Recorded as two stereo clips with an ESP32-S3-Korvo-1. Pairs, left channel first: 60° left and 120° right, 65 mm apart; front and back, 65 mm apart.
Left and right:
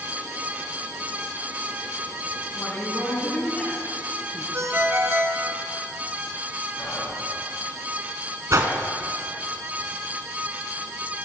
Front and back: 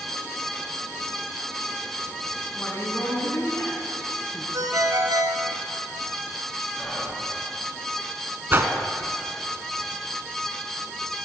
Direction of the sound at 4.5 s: 165° right.